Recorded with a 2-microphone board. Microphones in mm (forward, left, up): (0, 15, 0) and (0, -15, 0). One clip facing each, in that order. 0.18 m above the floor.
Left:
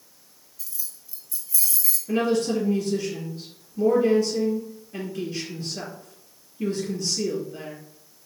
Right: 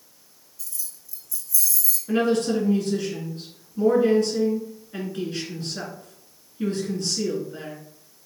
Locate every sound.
0.6 s keys jangling: 10° left (ahead or behind), 0.8 m; by 2.0 s 40° left (ahead or behind), 0.9 m
2.1 s a woman speaking: 50° right (ahead or behind), 1.7 m